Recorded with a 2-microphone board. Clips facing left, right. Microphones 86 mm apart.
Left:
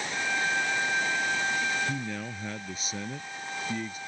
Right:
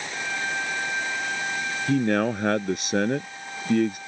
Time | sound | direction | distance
1.9 | a man speaking | 70° right (ahead or behind) | ?